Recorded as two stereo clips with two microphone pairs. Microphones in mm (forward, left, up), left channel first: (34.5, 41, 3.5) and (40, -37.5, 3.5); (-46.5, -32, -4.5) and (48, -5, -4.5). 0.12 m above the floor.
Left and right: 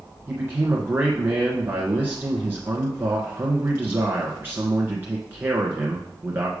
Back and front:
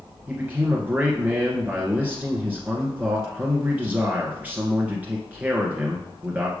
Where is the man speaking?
45° right, 1.5 m.